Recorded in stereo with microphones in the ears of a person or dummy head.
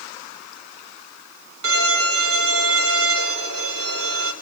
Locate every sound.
1.6 s a violin: 70° right (ahead or behind), 4.5 m